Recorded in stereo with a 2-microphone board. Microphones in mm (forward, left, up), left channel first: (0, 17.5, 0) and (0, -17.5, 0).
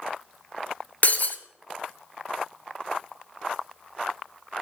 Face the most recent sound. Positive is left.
turn(degrees=50)  # may be behind; listen again after turning